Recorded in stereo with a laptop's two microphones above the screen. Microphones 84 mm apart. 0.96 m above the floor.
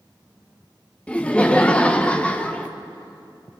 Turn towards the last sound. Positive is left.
turn(degrees=15)  # may be behind; listen again after turning